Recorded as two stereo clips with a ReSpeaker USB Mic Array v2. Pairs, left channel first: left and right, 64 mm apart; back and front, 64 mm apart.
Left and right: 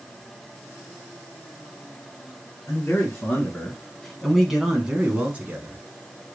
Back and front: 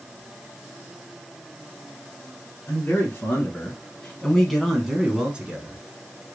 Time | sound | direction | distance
2.7 | a man speaking | 140° left | 1.4 m